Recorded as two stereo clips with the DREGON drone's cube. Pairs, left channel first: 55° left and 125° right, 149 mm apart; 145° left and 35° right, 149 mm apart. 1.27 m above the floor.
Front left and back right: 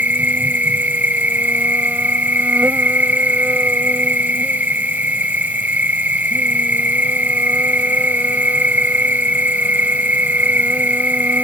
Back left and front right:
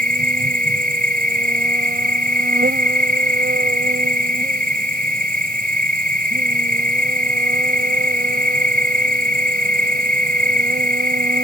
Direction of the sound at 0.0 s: 45° right.